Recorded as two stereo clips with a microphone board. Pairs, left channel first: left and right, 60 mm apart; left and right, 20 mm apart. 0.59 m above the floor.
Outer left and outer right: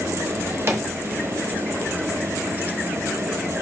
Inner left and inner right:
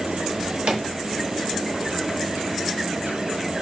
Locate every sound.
0.3 s a drawer: 50° right (ahead or behind), 0.9 m